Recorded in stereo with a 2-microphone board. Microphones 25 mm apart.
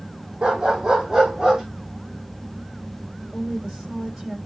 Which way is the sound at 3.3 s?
25° right (ahead or behind).